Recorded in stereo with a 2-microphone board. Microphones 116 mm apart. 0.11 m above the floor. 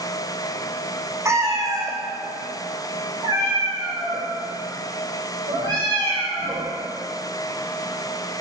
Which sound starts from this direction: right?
A cat meowing, at 1.2 s.